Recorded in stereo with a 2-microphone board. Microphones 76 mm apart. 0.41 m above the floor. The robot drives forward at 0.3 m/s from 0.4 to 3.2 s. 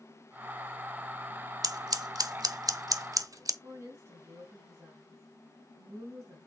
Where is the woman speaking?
45° right (ahead or behind), 3 m.